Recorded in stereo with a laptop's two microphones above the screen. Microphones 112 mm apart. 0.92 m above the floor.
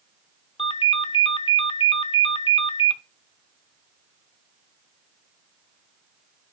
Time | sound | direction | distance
0.6 | a ringtone | 45° left (ahead or behind) | 0.6 m